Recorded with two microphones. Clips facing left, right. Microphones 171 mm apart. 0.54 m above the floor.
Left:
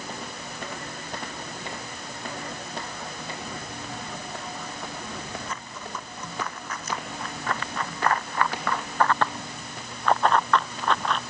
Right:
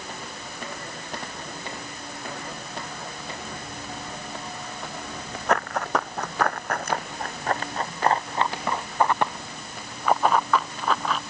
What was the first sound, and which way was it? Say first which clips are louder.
Running footsteps: right 13 dB; 75° right (ahead or behind).